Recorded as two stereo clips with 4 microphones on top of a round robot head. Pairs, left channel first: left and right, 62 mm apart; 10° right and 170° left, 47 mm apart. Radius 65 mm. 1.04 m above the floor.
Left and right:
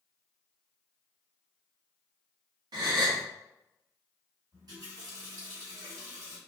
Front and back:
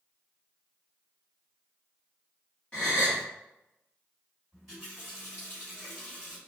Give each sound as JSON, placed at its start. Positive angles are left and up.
{"t": 2.7, "sound": "a gasp", "azimuth_deg": -80, "distance_m": 0.9}
{"t": 4.5, "sound": "a running tap", "azimuth_deg": -105, "distance_m": 1.5}